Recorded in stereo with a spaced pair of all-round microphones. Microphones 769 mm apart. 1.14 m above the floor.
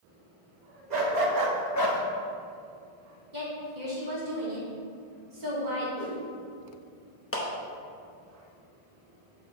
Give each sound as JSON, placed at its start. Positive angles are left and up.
{"t": 0.9, "sound": "a dog barking", "side_deg": -65, "distance_m": 1.2}
{"t": 3.3, "sound": "a woman speaking", "side_deg": -65, "distance_m": 1.9}
{"t": 6.0, "sound": "a whoosh", "side_deg": -65, "distance_m": 2.5}
{"t": 7.3, "sound": "a clap", "side_deg": 20, "distance_m": 0.9}